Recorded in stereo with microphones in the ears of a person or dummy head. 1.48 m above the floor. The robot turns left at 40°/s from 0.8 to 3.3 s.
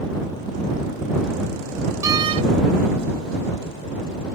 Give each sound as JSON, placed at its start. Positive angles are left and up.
{"t": 2.0, "sound": "a door slam", "side_deg": -20}